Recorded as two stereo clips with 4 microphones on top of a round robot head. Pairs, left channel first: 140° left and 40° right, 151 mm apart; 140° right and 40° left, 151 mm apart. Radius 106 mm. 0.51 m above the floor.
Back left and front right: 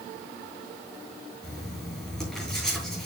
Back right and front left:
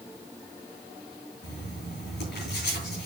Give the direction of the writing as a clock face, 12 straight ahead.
4 o'clock.